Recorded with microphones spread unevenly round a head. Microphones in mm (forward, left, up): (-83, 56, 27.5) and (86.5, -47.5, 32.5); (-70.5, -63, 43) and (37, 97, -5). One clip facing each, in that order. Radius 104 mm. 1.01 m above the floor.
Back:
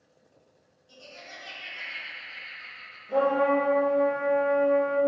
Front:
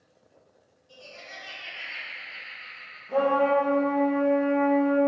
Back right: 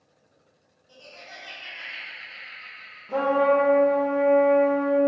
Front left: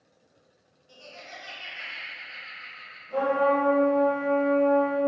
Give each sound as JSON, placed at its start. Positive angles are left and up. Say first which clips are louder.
{"t": 0.9, "sound": "laughter", "louder": "front 1 dB, front left 1 dB", "azimuth_deg": 105, "distance_m": 1.4}
{"t": 3.1, "sound": "a trumpet", "louder": "front 1 dB, back right 3 dB", "azimuth_deg": -130, "distance_m": 0.7}